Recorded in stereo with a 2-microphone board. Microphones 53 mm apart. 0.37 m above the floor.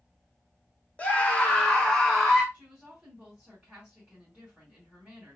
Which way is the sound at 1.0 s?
25° left (ahead or behind).